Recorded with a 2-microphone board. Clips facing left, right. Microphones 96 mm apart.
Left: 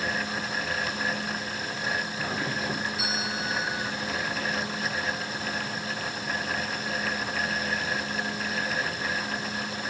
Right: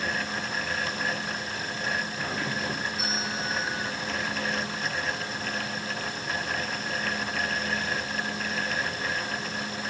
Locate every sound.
2.2 s a doorbell: 5° left (ahead or behind)